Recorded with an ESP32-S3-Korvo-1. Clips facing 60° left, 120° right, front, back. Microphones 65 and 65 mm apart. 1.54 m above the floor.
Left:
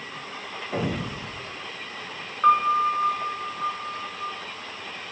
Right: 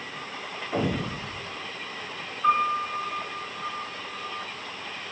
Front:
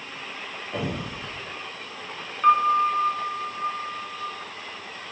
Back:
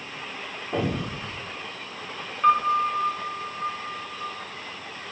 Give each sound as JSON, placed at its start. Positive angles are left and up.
{"t": 0.7, "sound": "an explosion", "azimuth_deg": 130, "distance_m": 1.5}
{"t": 2.4, "sound": "a piano", "azimuth_deg": 85, "distance_m": 0.7}